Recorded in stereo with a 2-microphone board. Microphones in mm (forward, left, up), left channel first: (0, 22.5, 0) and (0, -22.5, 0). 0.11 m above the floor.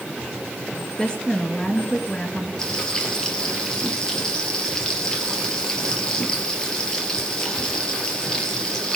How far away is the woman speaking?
About 1.6 m.